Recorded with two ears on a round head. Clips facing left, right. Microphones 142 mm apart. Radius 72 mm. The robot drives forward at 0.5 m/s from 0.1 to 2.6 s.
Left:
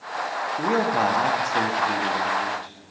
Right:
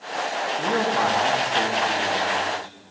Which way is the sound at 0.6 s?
25° left (ahead or behind).